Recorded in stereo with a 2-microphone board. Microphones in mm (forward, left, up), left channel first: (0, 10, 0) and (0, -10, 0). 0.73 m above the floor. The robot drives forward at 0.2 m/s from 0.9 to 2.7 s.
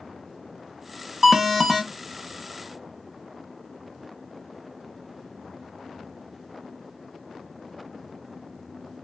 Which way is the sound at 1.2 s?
20° right (ahead or behind).